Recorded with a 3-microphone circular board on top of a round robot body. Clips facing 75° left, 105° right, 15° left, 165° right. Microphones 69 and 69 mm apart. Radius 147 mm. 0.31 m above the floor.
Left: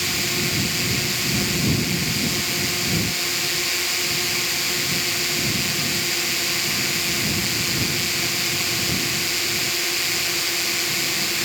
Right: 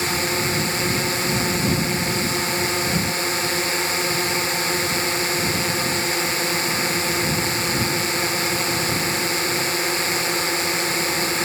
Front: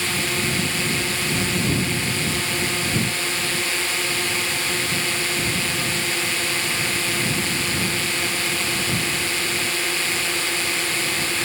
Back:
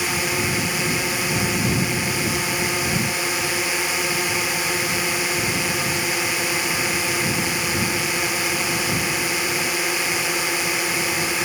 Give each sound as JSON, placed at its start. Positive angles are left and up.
{"t": 0.0, "sound": "a drone", "azimuth_deg": -100}